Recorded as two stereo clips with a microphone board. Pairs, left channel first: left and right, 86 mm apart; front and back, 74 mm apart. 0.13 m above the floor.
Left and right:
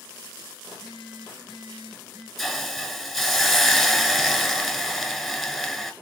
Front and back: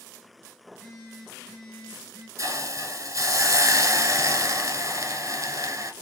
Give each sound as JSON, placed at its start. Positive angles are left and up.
{"t": 0.7, "sound": "a phone buzzing", "azimuth_deg": -95, "distance_m": 3.0}
{"t": 2.4, "sound": "a hiss", "azimuth_deg": 180, "distance_m": 1.1}